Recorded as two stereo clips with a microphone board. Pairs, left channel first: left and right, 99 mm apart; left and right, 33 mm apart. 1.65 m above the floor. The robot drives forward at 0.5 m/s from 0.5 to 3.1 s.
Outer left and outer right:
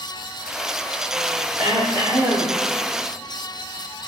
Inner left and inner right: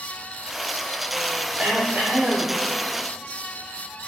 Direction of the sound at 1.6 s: 65° right (ahead or behind).